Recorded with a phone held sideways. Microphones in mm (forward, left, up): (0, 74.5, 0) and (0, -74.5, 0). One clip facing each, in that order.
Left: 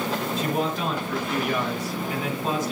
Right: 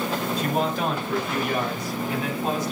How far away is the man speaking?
About 3.5 m.